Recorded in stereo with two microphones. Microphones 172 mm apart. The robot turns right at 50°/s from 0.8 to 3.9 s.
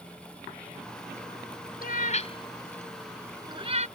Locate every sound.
1.8 s a cat meowing: 60° left (ahead or behind); by 3.9 s 45° right (ahead or behind)